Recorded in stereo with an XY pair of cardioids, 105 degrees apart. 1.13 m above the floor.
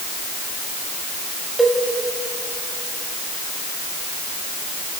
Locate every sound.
1.6 s a cowbell: 10° right, 2.5 m